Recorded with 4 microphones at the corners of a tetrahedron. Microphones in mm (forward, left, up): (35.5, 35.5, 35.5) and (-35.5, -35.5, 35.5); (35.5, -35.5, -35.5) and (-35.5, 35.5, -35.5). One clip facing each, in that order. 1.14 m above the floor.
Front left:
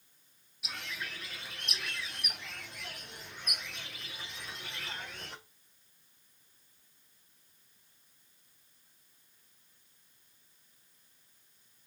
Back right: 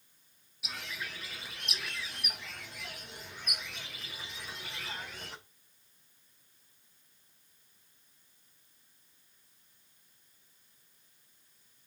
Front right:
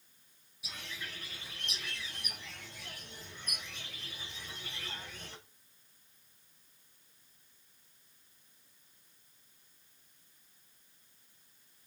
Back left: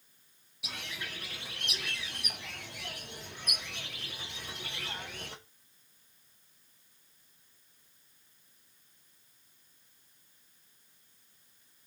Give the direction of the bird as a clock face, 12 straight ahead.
7 o'clock.